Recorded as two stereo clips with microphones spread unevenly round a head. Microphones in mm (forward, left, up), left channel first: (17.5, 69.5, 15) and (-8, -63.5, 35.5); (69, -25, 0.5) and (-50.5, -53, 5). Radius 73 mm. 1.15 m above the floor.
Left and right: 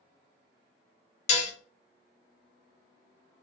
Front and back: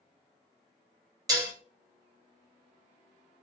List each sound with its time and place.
1.3 s dishes clattering: 125° left, 0.5 m